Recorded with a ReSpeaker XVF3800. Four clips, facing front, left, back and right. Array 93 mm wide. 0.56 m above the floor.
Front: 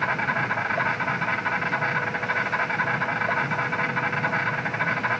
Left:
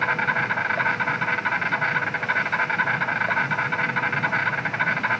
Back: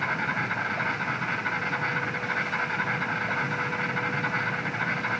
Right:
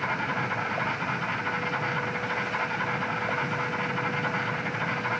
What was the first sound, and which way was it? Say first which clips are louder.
An insect: left 6 dB, front 3 dB; 75° left.